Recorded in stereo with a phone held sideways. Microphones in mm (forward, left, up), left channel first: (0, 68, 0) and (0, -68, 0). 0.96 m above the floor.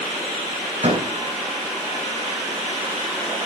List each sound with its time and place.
0.8 s a door slam: 55° right (ahead or behind), 4.5 m